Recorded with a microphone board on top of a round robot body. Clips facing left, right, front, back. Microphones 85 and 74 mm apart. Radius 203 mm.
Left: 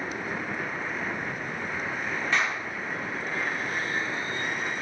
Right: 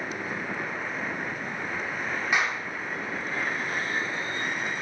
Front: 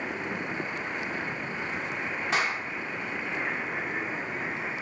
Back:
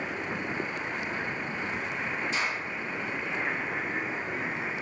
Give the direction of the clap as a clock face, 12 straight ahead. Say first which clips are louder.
Right 1 dB, front 6 dB; 12 o'clock.